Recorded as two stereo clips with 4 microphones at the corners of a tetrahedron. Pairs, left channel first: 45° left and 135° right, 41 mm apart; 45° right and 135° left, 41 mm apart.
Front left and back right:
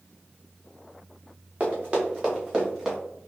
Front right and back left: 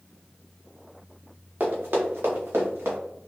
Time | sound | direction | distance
1.6 | running footsteps | 175° left | 2.0 m